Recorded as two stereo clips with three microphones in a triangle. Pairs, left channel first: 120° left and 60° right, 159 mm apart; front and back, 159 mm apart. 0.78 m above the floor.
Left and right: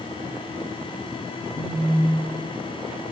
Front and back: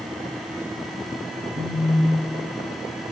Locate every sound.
1.6 s a phone buzzing: 140° left, 2.5 m